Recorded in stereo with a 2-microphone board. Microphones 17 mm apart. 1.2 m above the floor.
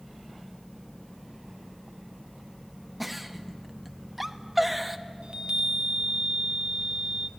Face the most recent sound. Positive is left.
turn(degrees=-60)  # may be behind; listen again after turning